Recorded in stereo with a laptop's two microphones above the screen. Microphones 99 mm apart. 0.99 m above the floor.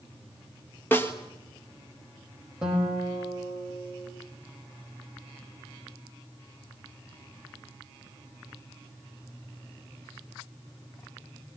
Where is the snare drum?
20° left (ahead or behind), 1.4 m.